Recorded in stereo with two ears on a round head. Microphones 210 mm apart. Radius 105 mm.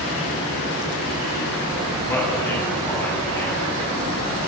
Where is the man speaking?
10° left (ahead or behind), 8 m.